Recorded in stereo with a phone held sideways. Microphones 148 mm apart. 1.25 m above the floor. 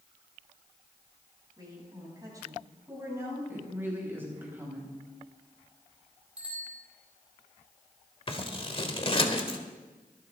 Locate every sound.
1.6 s a woman speaking: 30° right (ahead or behind), 7.5 m; by 3.4 s 15° right (ahead or behind), 7 m
3.5 s a woman speaking: 15° right (ahead or behind), 6 m
6.4 s a bicycle bell: 10° right (ahead or behind), 4.5 m
8.3 s scissors: 40° left (ahead or behind), 1.4 m